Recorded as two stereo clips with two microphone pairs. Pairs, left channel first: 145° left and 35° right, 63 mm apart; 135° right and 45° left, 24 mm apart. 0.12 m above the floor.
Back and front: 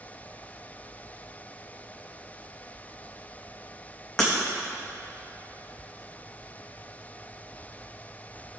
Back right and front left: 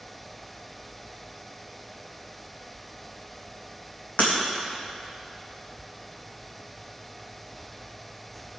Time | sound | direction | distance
4.2 | breaking glass | 130° right | 3 m